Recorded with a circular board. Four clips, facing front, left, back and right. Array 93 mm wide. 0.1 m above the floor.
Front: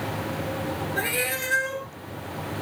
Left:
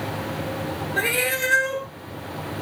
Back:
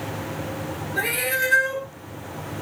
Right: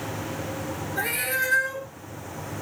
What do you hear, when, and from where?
1.0 s a cat meowing: 100° left, 0.8 m